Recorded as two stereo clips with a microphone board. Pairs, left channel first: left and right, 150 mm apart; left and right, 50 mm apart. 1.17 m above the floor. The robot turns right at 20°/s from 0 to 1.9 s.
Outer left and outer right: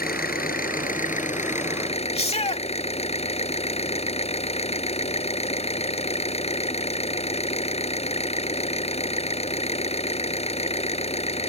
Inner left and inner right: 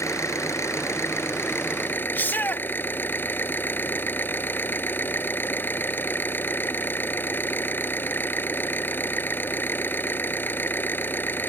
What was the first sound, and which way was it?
An engine running, 100° left.